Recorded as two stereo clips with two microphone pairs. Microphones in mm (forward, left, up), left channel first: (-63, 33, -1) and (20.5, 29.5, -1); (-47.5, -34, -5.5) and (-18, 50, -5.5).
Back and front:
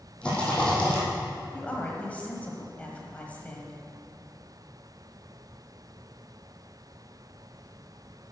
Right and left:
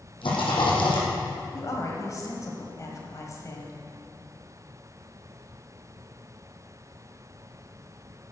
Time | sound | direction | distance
0.2 | a rattle | 105° right | 3 m
1.5 | a woman speaking | 120° right | 1.3 m